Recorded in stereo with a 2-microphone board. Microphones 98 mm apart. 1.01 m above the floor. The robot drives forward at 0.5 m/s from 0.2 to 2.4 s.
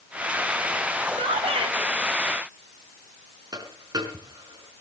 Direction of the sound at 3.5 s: 40° right (ahead or behind).